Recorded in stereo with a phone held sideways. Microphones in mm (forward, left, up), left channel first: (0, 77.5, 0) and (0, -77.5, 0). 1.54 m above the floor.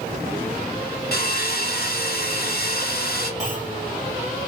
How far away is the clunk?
About 2.0 m.